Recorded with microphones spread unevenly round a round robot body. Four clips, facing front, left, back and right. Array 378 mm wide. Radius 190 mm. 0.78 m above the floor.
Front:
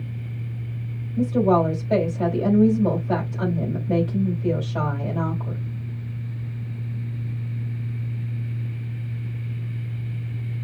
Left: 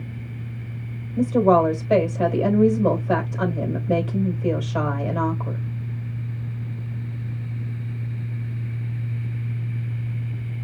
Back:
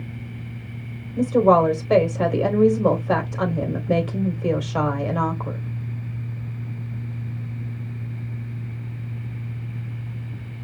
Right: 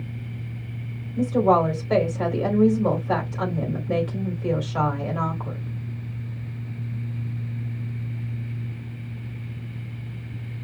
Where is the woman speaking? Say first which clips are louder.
Left 2 dB, back 3 dB; 170° left, 3.5 m.